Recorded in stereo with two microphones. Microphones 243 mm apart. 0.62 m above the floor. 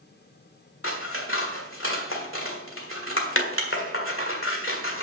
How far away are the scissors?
About 1.7 m.